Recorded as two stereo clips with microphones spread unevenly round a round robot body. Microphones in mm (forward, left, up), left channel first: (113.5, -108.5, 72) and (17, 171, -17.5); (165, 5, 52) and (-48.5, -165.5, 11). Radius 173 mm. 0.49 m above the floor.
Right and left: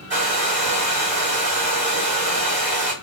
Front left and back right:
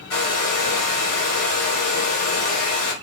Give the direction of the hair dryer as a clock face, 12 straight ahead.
10 o'clock.